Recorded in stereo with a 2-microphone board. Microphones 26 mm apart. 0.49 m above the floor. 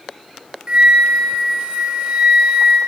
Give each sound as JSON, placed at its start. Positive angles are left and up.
{"t": 0.7, "sound": "a flute", "side_deg": -40, "distance_m": 3.5}